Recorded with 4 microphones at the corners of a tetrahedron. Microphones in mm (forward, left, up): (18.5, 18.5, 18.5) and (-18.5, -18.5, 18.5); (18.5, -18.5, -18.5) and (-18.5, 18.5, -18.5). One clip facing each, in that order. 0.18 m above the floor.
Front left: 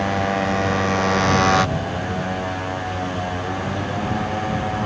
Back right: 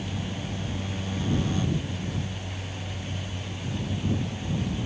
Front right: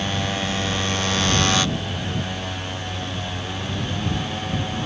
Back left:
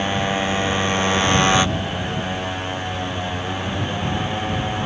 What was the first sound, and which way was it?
A motorcycle, 65° left.